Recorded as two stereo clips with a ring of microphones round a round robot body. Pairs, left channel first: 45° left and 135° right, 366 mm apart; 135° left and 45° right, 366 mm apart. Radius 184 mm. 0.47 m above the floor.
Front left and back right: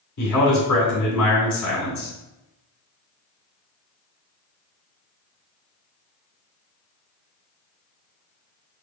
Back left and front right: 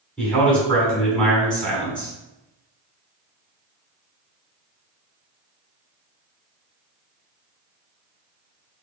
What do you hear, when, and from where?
0.2 s a man speaking: 50° left, 1.8 m